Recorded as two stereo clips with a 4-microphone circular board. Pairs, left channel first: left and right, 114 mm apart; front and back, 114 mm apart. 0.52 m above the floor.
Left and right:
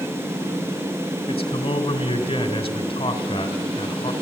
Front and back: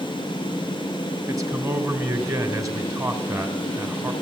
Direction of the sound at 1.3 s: 120° left.